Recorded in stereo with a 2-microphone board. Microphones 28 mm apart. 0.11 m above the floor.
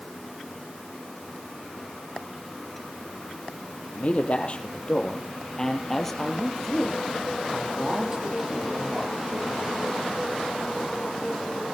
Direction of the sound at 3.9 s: 50° left (ahead or behind).